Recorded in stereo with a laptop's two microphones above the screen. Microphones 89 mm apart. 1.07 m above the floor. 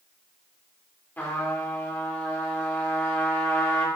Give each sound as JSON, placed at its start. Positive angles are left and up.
{"t": 1.2, "sound": "a trumpet", "side_deg": 20, "distance_m": 3.5}